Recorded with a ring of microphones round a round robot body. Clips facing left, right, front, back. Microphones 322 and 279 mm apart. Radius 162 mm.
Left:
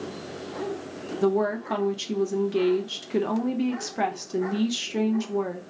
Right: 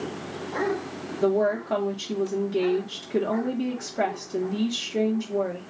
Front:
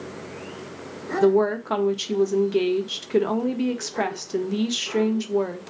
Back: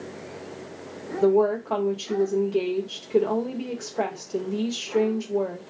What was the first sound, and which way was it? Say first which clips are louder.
A woman speaking: right 1 dB, front 1 dB; 35° left.